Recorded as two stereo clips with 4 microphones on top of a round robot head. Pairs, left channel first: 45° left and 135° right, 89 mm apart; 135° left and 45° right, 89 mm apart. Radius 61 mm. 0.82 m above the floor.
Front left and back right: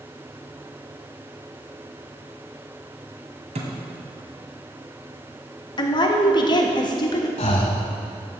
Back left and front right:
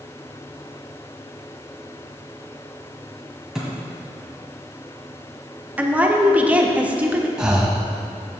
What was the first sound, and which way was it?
A thud, 130° right.